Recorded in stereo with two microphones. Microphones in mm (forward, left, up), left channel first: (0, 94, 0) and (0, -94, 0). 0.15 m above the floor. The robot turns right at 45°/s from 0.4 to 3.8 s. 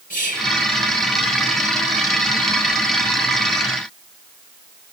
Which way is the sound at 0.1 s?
45° left (ahead or behind).